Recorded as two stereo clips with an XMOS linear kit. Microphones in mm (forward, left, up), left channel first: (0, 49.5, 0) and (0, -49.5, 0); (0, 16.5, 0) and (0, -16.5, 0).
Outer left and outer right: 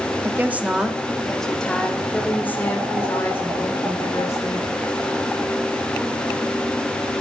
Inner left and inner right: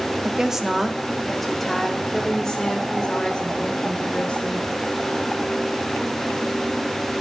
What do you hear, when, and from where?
0.2 s a woman speaking: 25° right (ahead or behind), 1.3 m; by 4.7 s 30° left (ahead or behind), 3.5 m